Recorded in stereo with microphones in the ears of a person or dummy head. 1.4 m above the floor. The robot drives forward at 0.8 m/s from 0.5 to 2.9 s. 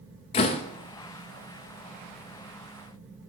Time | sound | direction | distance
0.3 | a door slam | 30° left (ahead or behind) | 0.7 m